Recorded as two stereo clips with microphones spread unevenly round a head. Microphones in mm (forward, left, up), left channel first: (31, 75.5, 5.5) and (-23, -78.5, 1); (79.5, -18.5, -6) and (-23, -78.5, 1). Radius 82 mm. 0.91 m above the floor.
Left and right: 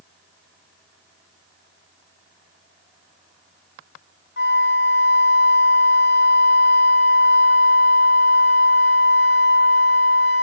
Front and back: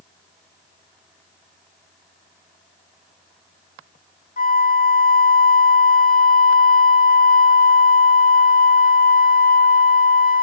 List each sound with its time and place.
4.4 s a flute: 45° left, 1.4 m